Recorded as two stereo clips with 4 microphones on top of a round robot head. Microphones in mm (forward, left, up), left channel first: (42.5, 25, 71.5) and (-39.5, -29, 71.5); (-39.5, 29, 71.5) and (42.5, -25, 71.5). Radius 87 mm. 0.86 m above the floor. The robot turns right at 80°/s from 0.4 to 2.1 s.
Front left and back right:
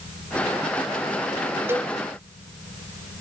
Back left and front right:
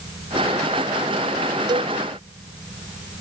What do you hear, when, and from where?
1.7 s a cowbell: 80° right; by 1.9 s 60° right